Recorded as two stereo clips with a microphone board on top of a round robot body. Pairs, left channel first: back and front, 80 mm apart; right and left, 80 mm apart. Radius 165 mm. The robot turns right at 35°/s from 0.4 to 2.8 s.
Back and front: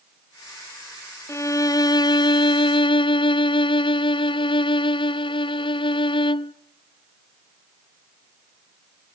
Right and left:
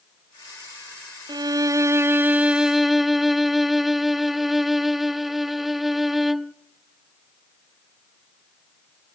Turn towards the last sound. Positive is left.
turn(degrees=180)